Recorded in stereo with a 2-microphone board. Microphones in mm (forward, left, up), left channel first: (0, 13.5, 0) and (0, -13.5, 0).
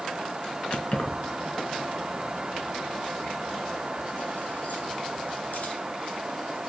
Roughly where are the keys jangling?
Left.